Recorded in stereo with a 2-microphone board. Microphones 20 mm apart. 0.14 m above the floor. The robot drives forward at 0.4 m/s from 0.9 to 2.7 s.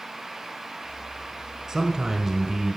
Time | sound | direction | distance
1.7 | a man speaking | 25° right (ahead or behind) | 1.2 m